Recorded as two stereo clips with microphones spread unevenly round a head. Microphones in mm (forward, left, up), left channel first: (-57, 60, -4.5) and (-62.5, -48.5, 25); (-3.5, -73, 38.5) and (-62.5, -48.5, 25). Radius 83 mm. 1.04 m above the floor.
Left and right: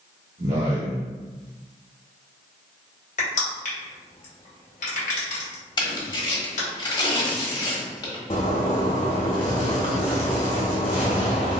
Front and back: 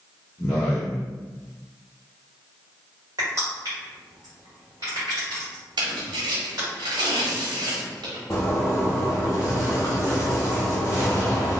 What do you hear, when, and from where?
0.4 s a man speaking: 65° right, 1.2 m
3.2 s crushing: 90° left, 1.4 m
5.8 s tearing paper: 140° left, 1.3 m
8.3 s a zipper: 30° left, 0.5 m